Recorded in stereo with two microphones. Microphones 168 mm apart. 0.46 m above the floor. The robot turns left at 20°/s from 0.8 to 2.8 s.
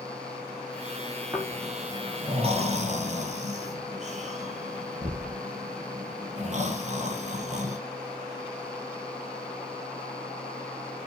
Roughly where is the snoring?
Centre.